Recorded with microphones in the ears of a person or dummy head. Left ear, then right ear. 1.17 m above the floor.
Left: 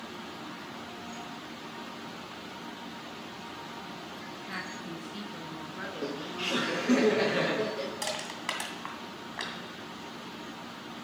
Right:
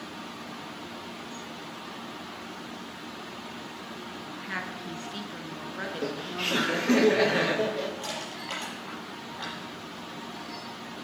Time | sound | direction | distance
4.3 | a woman speaking | 15° right (ahead or behind) | 1.3 m
5.8 | laughter | 10° right (ahead or behind) | 1.1 m
8.0 | crushing | 55° left (ahead or behind) | 2.5 m